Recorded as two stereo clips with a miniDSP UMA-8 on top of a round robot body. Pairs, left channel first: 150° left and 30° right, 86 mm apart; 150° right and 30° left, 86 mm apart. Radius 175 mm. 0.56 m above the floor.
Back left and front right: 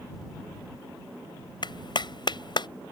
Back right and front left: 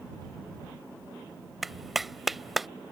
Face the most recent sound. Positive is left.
turn(degrees=120)